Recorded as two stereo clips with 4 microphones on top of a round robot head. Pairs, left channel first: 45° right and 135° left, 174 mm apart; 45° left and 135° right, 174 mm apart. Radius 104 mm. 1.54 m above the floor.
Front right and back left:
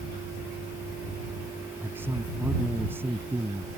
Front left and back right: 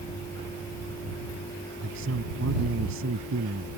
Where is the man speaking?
150° right.